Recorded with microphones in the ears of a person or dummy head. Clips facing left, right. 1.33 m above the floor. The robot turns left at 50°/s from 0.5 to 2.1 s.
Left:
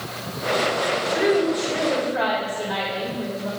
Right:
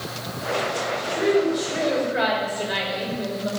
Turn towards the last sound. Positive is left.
turn(degrees=-25)